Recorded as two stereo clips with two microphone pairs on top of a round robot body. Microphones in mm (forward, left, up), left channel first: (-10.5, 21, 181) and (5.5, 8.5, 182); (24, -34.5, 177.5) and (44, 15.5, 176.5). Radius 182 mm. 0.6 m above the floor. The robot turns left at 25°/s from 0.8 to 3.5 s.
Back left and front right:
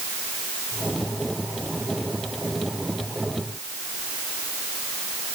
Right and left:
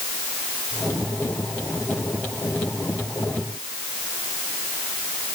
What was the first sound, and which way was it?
Only background noise.